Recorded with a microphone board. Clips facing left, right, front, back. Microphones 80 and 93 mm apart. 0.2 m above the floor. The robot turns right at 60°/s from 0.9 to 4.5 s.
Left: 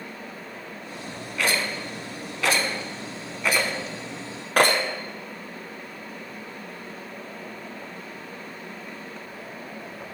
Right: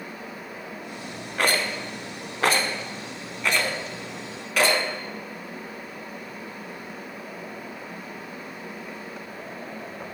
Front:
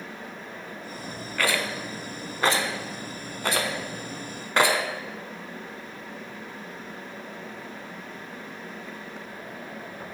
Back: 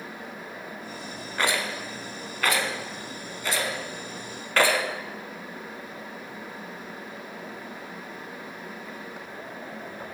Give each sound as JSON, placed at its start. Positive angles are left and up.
{"t": 1.4, "sound": "a rattle", "azimuth_deg": -120, "distance_m": 0.6}